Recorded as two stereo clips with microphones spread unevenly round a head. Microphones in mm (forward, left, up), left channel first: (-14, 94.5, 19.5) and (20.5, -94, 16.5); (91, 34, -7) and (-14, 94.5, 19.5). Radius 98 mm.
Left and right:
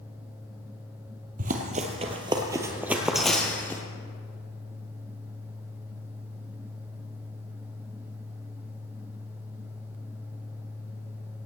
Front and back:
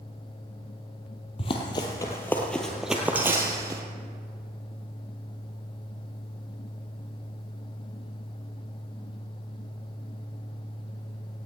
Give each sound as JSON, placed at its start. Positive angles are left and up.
{"t": 1.4, "sound": "running footsteps", "azimuth_deg": -70, "distance_m": 1.6}